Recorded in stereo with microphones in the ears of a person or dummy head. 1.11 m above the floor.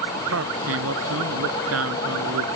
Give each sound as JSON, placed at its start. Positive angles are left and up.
{"t": 0.3, "sound": "a man speaking", "side_deg": -80}